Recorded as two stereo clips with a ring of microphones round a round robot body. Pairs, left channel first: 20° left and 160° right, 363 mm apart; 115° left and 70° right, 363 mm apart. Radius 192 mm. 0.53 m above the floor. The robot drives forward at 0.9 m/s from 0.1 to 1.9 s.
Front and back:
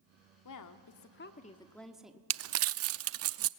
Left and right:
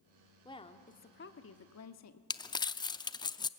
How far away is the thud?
I don't hear a thud.